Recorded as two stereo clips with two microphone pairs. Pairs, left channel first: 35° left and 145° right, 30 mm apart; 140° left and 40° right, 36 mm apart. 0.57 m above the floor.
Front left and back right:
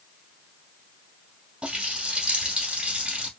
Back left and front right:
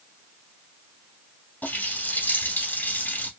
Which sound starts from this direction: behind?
A running tap, at 1.6 s.